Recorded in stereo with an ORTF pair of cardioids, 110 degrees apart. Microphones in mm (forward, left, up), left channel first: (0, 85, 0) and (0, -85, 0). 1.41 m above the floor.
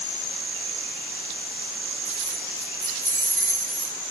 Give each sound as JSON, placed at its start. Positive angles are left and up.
{"t": 2.0, "sound": "keys jangling", "azimuth_deg": -20, "distance_m": 5.0}